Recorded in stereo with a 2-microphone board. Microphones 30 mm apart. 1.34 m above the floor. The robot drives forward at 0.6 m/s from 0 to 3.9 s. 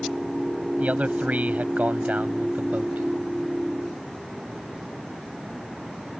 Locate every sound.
0.8 s a man speaking: 60° right (ahead or behind); by 3.1 s 65° right (ahead or behind)